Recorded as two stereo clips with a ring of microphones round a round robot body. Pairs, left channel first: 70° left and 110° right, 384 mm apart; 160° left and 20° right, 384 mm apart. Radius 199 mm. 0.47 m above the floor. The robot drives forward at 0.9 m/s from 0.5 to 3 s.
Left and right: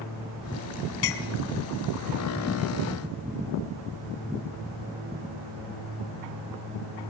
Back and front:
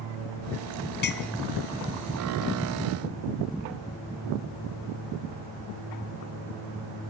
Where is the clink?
95° left, 2.5 m; by 1.3 s 100° left, 2.5 m.